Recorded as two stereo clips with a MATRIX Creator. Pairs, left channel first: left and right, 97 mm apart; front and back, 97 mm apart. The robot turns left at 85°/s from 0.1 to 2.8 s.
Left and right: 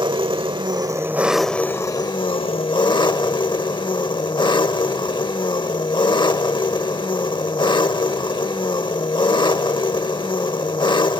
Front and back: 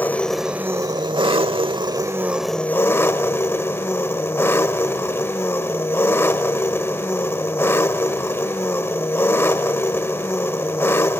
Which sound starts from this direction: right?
An engine running, at 0.0 s.